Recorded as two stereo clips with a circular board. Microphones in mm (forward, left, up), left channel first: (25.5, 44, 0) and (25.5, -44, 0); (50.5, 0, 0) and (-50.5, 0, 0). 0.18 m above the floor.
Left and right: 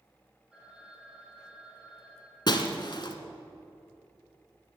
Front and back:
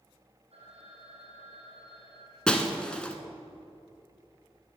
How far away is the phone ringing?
About 5.5 m.